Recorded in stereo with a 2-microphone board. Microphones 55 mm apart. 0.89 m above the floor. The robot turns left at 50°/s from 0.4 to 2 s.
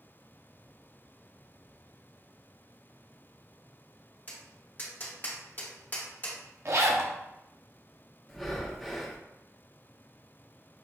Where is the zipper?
55° right (ahead or behind), 0.6 m.